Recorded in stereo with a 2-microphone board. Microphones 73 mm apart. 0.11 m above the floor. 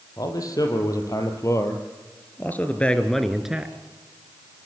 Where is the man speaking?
55° left (ahead or behind), 5 m; by 3.8 s 20° right (ahead or behind), 2.0 m.